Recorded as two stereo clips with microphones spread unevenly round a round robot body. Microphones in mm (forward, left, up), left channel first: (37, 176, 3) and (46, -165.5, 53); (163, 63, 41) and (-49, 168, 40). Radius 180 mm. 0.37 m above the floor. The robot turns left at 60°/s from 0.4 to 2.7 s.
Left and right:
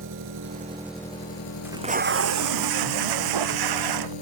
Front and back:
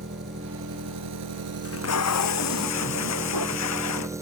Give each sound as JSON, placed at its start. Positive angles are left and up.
{"t": 0.0, "sound": "an engine running", "azimuth_deg": -145}
{"t": 1.6, "sound": "tape being pulled", "azimuth_deg": -5}